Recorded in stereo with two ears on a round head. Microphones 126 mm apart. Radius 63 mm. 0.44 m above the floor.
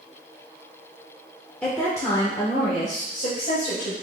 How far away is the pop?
No pop in this recording.